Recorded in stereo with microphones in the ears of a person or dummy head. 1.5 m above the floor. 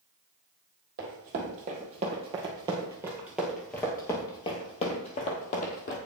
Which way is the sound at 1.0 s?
50° right (ahead or behind).